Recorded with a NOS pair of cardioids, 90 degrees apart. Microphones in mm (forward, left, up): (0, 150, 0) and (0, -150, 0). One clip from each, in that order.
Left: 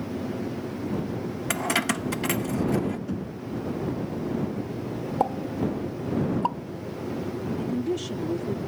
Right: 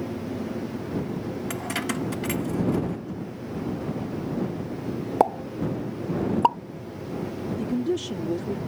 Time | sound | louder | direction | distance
1.5 | keys jangling | left 6 dB | 35° left | ?
3.1 | knocking | left 1 dB | 40° left | ?
5.2 | a pop | right 4 dB | 45° right | ?
7.5 | a woman speaking | right 2 dB | 20° right | ?